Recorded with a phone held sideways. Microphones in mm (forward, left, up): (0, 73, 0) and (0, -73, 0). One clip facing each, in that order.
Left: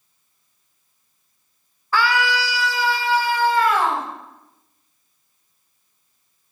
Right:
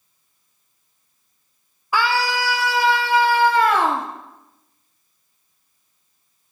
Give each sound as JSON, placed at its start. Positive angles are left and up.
{"t": 1.9, "sound": "a scream", "side_deg": -15, "distance_m": 0.6}